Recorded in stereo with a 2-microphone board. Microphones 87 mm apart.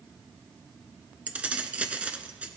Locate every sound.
1.3 s keys jangling: 15° right (ahead or behind), 0.9 m